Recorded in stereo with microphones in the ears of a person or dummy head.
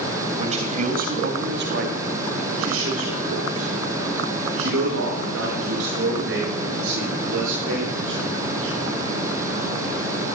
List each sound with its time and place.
0.4 s a man speaking: 30° right (ahead or behind), 3 m; by 8.7 s 75° right (ahead or behind), 10.5 m